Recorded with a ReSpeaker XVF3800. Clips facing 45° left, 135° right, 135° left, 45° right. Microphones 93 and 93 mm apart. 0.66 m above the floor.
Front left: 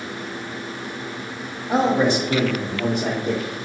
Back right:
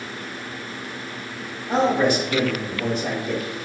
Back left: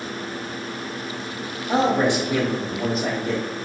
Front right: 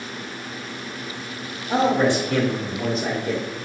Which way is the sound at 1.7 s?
130° left.